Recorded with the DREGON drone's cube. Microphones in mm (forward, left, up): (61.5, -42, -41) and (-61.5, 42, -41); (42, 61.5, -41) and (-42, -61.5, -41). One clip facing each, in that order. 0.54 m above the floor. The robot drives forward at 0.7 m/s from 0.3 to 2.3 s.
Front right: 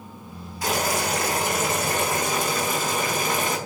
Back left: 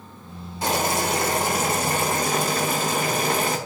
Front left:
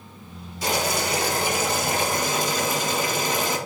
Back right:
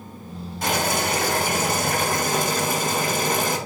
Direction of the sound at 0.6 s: 155° right.